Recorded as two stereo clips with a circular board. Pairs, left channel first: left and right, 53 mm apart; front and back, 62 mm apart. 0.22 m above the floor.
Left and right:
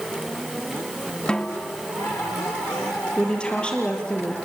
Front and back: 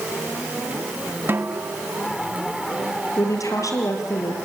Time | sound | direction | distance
1.3 | a snare drum | 150° left | 1.2 m
3.2 | a woman speaking | 20° left | 5 m